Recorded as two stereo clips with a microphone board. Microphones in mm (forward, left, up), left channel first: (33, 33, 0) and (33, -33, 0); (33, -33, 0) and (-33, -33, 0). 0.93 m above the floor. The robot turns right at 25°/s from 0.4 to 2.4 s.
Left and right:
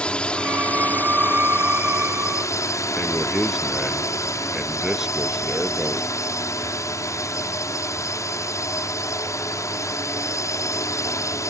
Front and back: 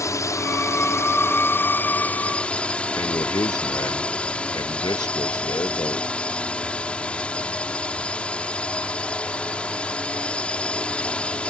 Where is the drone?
20° left; by 11.5 s 70° left.